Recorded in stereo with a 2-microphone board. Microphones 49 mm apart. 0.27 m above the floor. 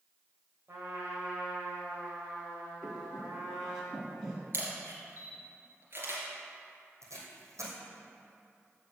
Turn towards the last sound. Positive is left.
turn(degrees=-85)